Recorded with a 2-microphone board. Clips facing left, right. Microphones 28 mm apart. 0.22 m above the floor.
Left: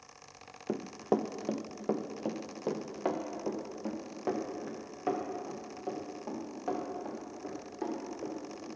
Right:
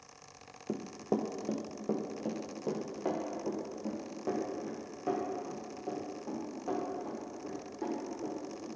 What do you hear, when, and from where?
0.7 s running footsteps: 45° left (ahead or behind), 0.7 m; by 8.7 s 35° left (ahead or behind), 5.5 m